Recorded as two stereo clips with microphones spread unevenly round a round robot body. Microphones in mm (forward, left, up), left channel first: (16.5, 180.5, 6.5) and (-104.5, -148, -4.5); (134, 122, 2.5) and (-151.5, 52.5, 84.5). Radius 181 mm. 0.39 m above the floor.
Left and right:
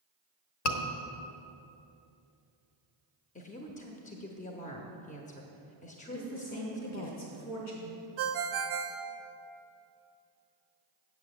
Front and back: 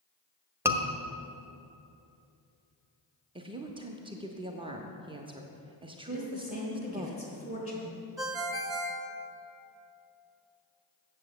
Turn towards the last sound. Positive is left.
turn(degrees=-75)